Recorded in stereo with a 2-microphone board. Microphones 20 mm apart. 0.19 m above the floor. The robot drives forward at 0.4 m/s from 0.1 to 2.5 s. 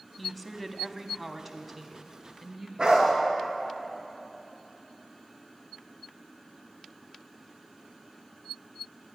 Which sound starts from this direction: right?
A dog barking, at 2.8 s.